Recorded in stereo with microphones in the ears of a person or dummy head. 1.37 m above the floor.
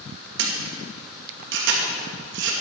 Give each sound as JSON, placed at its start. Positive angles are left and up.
{"t": 0.4, "sound": "a camera shutter", "side_deg": -65, "distance_m": 2.5}